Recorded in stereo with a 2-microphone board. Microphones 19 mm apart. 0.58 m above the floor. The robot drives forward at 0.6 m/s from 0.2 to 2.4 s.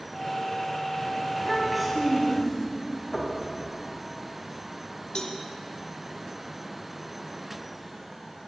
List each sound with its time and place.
1.4 s a child speaking: 5° left (ahead or behind), 3 m
3.1 s knocking: 35° left (ahead or behind), 2.5 m
5.2 s a cowbell: 40° left (ahead or behind), 1.0 m